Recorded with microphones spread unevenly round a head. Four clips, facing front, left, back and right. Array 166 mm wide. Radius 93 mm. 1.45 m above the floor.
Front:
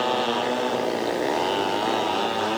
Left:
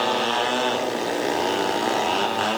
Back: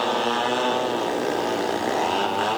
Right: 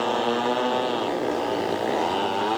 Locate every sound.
Only background noise.